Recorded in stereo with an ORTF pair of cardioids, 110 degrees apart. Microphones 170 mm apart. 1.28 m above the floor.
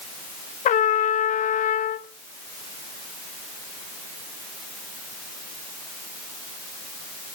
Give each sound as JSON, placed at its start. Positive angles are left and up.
{"t": 0.7, "sound": "a trumpet", "azimuth_deg": 50, "distance_m": 0.8}